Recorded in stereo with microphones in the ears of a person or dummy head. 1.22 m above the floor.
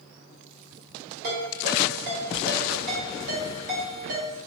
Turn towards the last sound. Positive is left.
turn(degrees=-55)  # may be behind; listen again after turning